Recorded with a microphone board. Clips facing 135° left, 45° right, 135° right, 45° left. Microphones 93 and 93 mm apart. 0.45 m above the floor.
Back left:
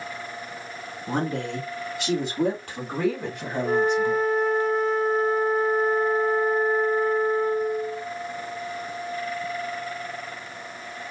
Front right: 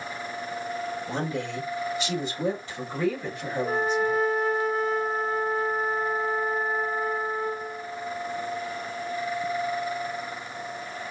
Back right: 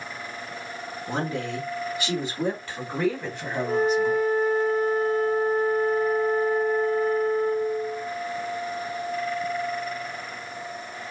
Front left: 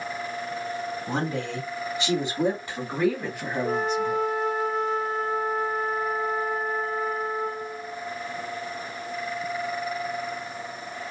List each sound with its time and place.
1.1 s a woman speaking: 100° left, 3.5 m; by 4.2 s 140° left, 2.5 m
3.6 s a flute: 45° left, 1.3 m